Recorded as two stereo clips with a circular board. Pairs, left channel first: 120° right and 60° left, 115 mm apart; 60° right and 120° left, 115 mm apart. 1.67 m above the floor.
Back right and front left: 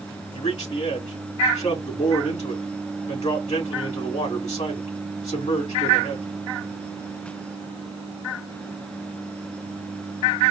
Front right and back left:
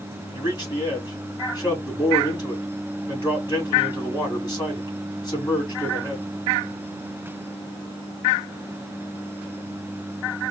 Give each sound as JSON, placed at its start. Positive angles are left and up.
{"t": 0.3, "sound": "a man speaking", "azimuth_deg": -115, "distance_m": 3.5}